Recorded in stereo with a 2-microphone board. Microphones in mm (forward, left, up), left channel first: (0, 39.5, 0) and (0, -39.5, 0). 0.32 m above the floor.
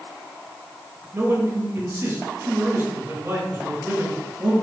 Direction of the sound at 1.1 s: 30° right (ahead or behind).